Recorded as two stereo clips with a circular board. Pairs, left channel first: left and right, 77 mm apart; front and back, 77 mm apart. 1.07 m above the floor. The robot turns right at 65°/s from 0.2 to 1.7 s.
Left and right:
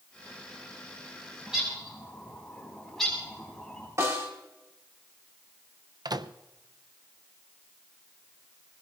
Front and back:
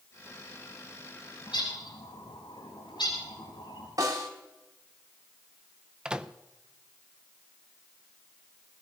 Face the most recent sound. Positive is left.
turn(degrees=-100)